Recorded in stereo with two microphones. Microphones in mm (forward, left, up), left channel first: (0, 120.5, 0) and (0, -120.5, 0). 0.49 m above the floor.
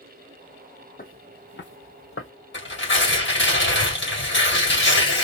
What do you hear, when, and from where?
1.0 s footsteps: 35° left (ahead or behind), 0.9 m; by 2.3 s 60° left (ahead or behind), 0.8 m
2.5 s tearing paper: 50° left (ahead or behind), 2 m